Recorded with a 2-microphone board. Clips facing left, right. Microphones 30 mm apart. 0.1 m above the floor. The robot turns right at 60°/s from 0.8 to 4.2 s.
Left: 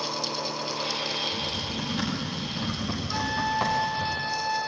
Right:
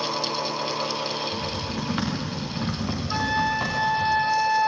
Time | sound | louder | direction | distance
1.3 | typing on a keyboard | right 1 dB | 55° right (ahead or behind) | 7 m
3.1 | a flute | right 4 dB | 130° right | 0.6 m